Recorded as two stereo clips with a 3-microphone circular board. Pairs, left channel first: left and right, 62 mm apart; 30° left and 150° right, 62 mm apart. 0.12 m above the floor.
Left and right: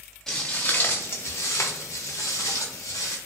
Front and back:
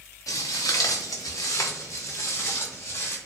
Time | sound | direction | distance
0.3 | footsteps | 10° left | 0.6 m